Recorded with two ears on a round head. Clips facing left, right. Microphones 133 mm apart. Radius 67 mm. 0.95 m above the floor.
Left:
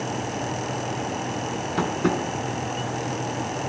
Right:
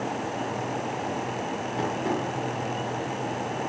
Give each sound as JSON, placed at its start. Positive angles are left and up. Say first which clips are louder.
{"t": 1.8, "sound": "tapping", "louder": "left 4 dB", "side_deg": 85, "distance_m": 4.5}